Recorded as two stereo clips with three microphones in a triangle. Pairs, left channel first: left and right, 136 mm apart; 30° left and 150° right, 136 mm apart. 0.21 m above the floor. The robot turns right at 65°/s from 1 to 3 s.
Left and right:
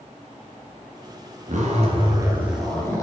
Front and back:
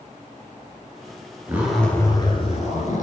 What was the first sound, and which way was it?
A zipper, 75° right.